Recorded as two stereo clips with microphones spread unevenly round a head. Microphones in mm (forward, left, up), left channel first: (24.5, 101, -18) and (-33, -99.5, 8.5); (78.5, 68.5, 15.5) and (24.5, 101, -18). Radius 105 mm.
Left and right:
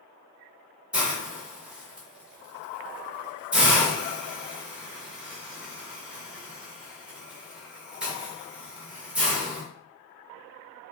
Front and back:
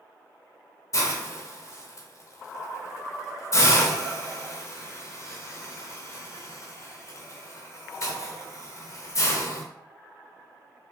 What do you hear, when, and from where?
0.9 s a hiss: 25° right, 1.0 m